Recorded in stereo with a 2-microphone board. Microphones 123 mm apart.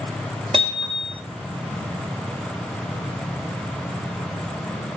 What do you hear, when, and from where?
0.5 s hammering: 50° right (ahead or behind), 1.5 m